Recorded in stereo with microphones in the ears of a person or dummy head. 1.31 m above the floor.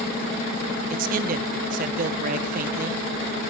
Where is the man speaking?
50° right (ahead or behind), 0.9 m.